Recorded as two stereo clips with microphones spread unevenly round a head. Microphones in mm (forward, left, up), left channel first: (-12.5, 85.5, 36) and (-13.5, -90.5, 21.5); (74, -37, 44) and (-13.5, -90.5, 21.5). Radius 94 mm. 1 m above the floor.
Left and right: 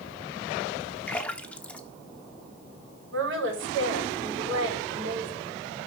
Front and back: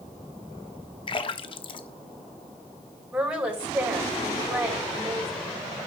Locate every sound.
1.1 s a splash: 10° left, 0.9 m
3.1 s a woman speaking: 70° right, 5.5 m